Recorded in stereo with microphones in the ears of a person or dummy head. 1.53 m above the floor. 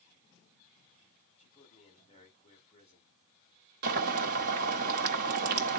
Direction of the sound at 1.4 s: 35° left (ahead or behind).